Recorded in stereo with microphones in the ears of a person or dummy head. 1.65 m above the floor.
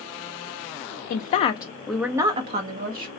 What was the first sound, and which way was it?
A woman speaking, 45° left (ahead or behind).